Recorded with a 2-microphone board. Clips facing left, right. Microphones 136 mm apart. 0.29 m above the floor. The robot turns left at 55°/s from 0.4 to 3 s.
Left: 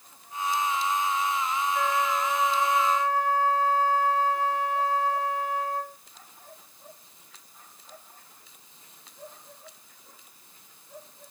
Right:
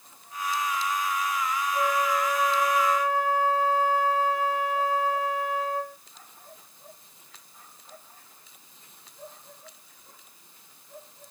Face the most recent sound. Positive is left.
turn(degrees=140)